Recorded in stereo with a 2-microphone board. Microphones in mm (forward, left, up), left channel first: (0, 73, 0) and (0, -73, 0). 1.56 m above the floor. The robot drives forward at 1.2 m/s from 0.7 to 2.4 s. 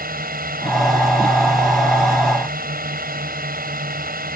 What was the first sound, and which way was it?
A drone, 85° right.